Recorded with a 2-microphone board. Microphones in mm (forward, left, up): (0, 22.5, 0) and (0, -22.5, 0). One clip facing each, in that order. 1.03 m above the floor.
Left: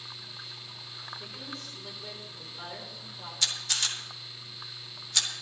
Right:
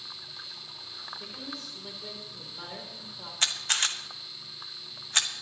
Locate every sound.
1.2 s a woman speaking: centre (ahead or behind), 3 m
3.4 s a camera shutter: 40° right (ahead or behind), 1.2 m